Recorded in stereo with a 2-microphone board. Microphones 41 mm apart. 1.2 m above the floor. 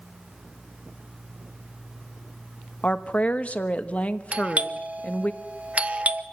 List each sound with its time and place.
2.8 s a woman speaking: 35° left (ahead or behind), 1.2 m
4.3 s a doorbell: 30° right (ahead or behind), 0.9 m